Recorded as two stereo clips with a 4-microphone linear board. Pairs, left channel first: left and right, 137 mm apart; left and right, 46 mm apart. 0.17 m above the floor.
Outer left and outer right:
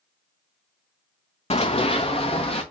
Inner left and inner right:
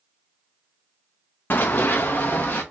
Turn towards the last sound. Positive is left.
turn(degrees=45)  # may be behind; listen again after turning